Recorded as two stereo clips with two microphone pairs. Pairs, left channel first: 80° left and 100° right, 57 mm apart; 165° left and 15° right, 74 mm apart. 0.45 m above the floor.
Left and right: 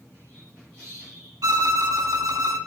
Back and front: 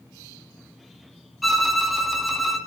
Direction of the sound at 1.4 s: 105° right.